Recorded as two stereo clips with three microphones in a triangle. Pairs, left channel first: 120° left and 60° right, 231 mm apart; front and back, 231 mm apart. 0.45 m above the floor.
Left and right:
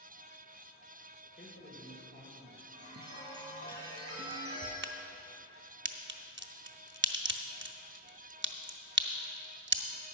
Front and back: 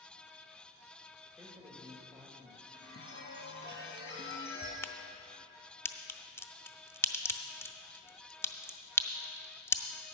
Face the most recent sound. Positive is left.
turn(degrees=-80)